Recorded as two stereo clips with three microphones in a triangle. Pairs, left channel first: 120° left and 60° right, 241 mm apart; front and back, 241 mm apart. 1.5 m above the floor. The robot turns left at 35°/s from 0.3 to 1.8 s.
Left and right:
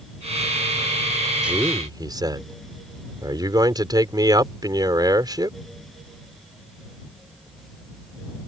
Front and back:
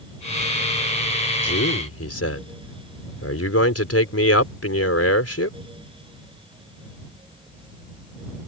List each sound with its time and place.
1.4 s a man speaking: 25° left; by 5.6 s 15° left